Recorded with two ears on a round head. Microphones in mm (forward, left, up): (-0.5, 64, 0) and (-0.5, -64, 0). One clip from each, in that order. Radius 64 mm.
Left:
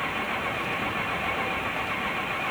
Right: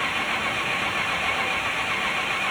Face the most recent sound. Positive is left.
turn(degrees=-85)